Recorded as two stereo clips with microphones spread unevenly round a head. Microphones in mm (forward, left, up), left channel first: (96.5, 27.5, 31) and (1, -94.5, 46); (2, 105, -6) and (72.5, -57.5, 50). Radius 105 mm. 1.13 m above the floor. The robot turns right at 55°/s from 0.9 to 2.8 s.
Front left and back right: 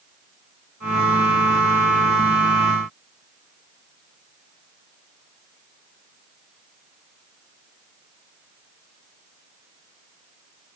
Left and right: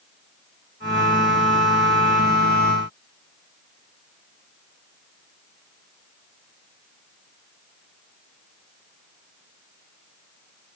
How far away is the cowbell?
I don't hear a cowbell.